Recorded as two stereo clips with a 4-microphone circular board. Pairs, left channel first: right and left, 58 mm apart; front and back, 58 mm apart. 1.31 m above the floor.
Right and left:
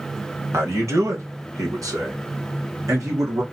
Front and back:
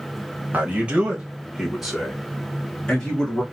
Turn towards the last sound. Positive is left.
turn(degrees=75)